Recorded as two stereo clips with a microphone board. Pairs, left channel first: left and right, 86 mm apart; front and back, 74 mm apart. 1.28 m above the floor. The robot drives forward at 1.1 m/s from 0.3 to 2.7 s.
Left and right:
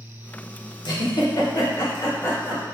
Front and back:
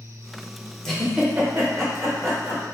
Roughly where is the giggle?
Left.